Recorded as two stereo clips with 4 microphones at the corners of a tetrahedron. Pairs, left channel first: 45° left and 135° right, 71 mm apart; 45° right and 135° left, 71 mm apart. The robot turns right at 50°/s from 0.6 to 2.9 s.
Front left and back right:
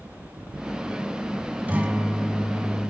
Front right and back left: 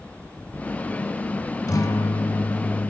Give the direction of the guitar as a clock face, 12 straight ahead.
2 o'clock.